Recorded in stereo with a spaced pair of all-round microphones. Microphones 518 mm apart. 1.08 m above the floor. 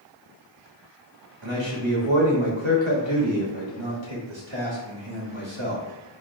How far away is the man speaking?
About 1.5 m.